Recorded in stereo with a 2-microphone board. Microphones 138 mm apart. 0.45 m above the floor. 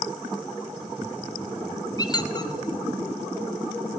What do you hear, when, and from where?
2.0 s a squeak: 30° left (ahead or behind), 0.6 m